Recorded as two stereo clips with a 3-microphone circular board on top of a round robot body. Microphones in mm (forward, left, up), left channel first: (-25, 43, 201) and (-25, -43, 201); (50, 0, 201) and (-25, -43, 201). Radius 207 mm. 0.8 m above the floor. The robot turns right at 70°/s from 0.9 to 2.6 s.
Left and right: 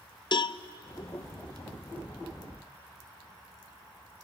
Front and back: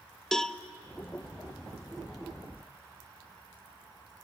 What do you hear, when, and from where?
0.3 s a cowbell: 115° left, 0.7 m